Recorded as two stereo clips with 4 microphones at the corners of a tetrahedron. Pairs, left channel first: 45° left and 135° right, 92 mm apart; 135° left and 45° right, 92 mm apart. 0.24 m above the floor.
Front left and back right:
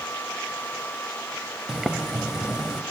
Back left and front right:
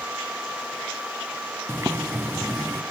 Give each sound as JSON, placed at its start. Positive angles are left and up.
{"t": 1.7, "sound": "boiling", "azimuth_deg": -55, "distance_m": 0.7}